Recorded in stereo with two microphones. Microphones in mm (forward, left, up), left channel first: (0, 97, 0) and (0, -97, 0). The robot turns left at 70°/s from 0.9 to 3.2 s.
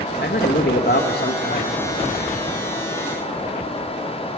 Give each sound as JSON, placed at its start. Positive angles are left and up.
{"t": 0.2, "sound": "a man speaking", "azimuth_deg": 100, "distance_m": 1.2}